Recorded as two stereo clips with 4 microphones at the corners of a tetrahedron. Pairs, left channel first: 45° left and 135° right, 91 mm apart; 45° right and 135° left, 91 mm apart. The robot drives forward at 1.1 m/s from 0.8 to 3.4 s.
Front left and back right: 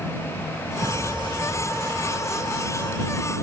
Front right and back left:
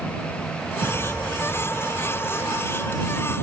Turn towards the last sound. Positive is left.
turn(degrees=-165)